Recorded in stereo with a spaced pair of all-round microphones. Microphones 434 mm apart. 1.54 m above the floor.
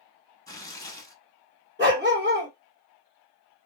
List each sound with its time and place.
0.5 s tearing paper: 10° left (ahead or behind), 0.7 m
1.8 s a dog barking: 25° right (ahead or behind), 1.3 m